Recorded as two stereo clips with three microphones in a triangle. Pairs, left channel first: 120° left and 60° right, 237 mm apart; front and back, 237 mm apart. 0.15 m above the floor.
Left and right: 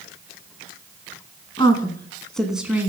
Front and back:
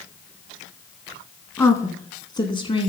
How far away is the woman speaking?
About 1.4 m.